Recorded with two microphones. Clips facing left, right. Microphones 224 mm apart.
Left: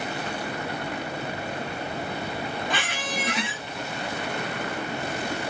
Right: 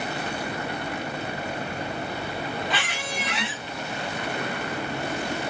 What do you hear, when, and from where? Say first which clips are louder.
2.7 s a squeak: left 1 dB; 50° left (ahead or behind), 0.7 m